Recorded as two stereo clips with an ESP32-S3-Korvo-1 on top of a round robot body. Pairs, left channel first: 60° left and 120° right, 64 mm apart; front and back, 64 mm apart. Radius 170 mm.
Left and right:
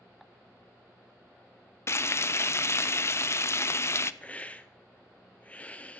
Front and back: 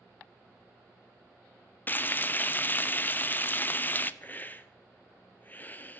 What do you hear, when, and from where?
1.9 s frying: 45° left, 0.6 m
4.2 s a hiss: 15° left, 0.8 m